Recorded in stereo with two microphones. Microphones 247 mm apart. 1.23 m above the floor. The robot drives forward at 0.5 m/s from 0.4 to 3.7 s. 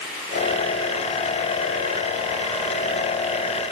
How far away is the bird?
I don't hear a bird.